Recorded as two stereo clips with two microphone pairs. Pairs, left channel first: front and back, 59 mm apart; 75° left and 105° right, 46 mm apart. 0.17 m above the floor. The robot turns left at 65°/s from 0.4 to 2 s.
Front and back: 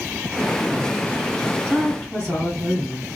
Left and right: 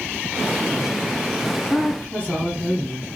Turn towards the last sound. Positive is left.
turn(degrees=50)